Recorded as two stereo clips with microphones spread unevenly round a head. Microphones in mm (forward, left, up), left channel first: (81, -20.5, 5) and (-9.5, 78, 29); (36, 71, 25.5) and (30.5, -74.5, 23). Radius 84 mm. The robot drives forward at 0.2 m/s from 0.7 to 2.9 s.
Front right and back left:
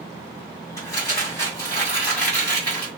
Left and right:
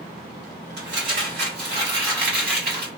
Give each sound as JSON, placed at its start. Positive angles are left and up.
{"t": 0.8, "sound": "crumpling", "azimuth_deg": -120, "distance_m": 1.9}